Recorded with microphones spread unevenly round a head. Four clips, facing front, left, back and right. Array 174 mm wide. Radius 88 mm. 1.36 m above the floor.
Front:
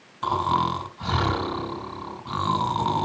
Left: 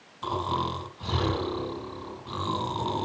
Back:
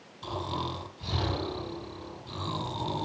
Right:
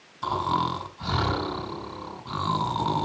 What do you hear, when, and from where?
0.2 s snoring: 15° right, 3 m